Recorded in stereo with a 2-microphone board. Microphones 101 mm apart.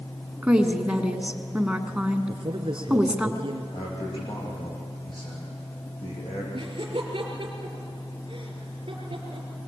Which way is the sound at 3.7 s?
50° left (ahead or behind).